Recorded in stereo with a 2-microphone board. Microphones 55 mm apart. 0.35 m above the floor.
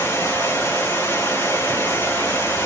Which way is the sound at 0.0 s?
70° left (ahead or behind).